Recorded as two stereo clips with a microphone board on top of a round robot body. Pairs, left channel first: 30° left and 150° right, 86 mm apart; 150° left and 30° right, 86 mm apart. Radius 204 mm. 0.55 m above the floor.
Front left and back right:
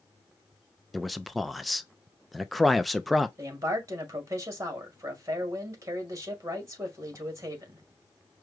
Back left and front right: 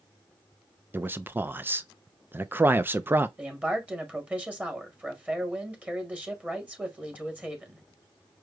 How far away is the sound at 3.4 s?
About 1.9 m.